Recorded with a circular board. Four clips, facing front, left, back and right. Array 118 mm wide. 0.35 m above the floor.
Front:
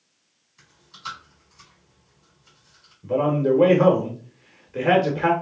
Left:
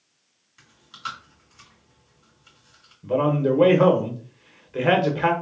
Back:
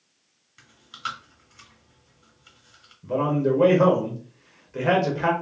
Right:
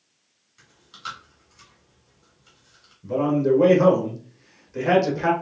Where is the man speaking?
80° left, 0.9 m.